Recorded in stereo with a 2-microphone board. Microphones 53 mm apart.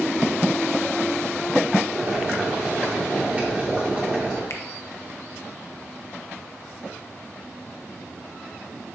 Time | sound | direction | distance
1.9 | boiling | 25° right (ahead or behind) | 2.5 m
4.5 | a finger snap | 65° left (ahead or behind) | 0.8 m